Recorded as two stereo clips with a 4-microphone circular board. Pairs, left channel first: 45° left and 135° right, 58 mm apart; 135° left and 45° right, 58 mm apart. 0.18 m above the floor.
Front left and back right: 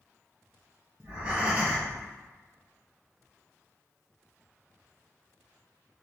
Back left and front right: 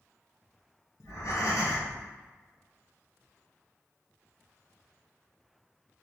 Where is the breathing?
160° left, 1.4 m.